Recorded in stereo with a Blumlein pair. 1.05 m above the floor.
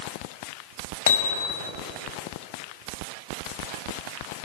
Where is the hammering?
60° left, 4.5 m.